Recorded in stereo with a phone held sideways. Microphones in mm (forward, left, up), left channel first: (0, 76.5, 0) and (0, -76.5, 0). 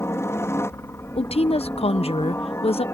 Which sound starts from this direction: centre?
A helicopter, at 0.0 s.